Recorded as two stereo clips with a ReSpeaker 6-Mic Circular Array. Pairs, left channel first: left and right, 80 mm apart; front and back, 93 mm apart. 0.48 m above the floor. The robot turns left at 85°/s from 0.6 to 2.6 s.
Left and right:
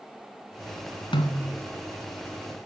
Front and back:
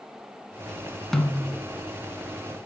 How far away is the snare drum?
About 0.9 m.